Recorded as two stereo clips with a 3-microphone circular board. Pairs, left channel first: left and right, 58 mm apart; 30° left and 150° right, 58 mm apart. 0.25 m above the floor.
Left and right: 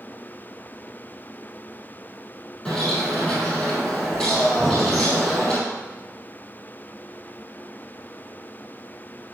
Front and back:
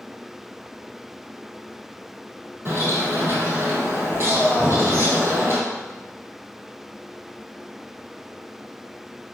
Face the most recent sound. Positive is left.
turn(degrees=150)